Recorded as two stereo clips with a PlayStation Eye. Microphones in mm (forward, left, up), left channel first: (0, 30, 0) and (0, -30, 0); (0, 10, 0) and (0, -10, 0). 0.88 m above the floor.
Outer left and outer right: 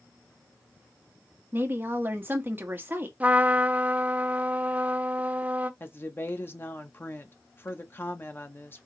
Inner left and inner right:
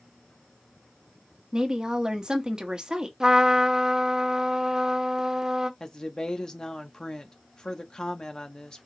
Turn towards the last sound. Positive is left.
turn(degrees=40)  # may be behind; listen again after turning